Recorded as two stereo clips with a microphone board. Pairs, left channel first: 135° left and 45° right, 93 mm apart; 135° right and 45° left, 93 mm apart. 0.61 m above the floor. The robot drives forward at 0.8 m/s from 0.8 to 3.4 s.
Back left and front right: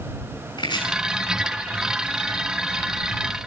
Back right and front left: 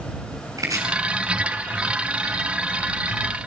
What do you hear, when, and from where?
0.6 s chopping: 100° left, 6 m